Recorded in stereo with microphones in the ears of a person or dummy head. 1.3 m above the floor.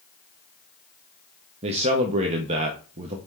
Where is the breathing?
No breathing in this recording.